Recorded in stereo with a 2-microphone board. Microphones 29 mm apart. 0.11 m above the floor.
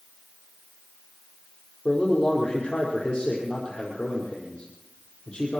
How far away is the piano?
I don't hear a piano.